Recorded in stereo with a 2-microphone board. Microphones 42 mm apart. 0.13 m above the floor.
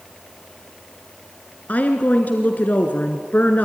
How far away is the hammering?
No hammering in this recording.